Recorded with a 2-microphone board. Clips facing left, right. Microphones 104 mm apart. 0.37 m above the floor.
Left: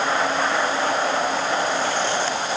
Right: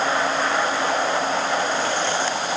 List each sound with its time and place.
Only background noise.